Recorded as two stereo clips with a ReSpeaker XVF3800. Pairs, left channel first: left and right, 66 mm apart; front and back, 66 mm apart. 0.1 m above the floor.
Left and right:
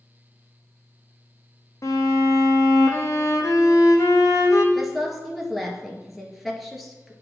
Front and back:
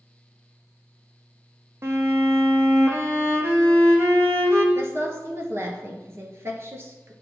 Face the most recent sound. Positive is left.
turn(degrees=180)